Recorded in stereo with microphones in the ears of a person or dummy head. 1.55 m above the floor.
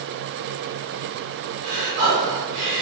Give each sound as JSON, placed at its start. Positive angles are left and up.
{"t": 1.6, "sound": "breathing", "side_deg": -55, "distance_m": 1.0}